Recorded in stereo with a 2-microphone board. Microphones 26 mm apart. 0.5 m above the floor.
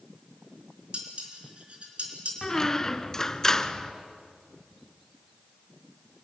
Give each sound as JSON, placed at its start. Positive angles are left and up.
{"t": 0.9, "sound": "dishes clattering", "side_deg": -50, "distance_m": 4.0}
{"t": 2.4, "sound": "a squeak", "side_deg": 15, "distance_m": 0.7}